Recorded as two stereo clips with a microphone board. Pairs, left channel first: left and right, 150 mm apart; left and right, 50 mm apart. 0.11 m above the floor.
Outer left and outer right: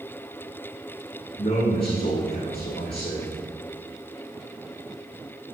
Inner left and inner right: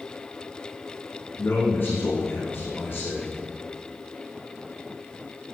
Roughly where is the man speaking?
Left.